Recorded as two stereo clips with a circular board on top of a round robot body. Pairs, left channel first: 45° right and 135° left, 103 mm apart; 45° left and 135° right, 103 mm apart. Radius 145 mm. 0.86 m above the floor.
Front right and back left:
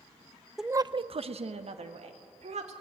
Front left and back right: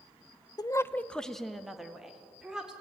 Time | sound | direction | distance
0.6 | a woman speaking | 45° left | 0.6 m